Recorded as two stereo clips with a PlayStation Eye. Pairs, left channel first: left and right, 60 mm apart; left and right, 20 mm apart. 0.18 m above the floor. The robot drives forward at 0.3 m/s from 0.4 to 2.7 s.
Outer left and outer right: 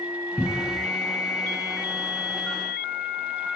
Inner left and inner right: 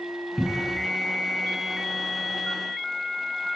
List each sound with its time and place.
0.4 s a cupboard door: 25° left (ahead or behind), 0.9 m